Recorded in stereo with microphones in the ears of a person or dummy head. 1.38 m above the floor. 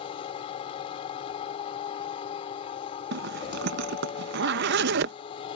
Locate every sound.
0.0 s a machine running: 45° left (ahead or behind)
3.1 s a zipper: 70° right (ahead or behind)